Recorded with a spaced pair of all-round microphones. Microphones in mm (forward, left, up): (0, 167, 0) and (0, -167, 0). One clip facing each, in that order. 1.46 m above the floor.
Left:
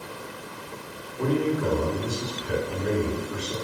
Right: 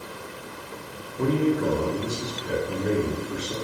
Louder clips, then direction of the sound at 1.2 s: Right 2 dB; 30° right (ahead or behind).